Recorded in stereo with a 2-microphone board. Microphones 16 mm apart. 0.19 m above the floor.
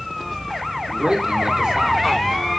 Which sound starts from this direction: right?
A man speaking, at 0.9 s.